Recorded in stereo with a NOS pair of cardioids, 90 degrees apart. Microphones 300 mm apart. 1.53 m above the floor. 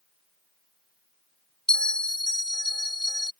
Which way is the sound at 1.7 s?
5° left.